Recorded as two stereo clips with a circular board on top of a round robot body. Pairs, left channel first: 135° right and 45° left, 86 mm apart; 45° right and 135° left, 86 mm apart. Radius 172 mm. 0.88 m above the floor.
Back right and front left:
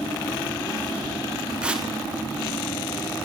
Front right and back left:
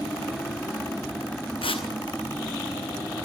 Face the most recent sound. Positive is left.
turn(degrees=-35)